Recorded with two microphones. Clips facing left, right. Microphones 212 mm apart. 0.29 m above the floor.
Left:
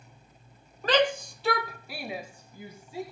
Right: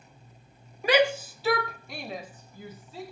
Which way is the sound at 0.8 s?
10° right (ahead or behind).